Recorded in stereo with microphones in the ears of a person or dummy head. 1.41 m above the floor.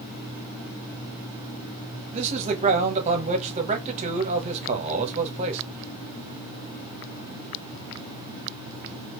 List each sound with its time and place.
2.1 s a man speaking: 40° right (ahead or behind), 1.2 m